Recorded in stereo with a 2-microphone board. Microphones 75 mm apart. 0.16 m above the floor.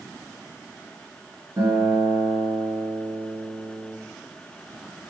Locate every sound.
1.6 s a guitar: 50° right (ahead or behind), 1.4 m